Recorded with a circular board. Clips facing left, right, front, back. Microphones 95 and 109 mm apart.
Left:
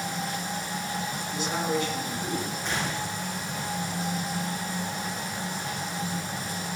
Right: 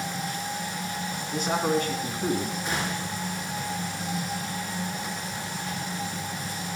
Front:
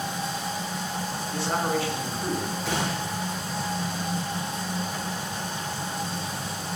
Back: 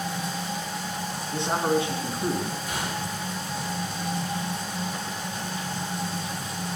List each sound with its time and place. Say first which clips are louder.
1.3 s a man speaking: right 4 dB, back 3 dB; 115° right, 2.5 m
2.6 s a gunshot: even, front 3 dB; 5° right, 4 m